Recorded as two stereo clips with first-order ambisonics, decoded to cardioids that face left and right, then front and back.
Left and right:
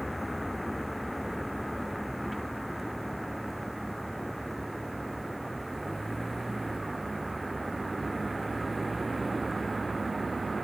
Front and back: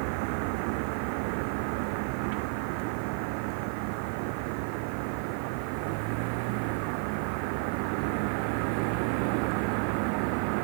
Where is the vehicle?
175° left; by 10.6 s 170° right.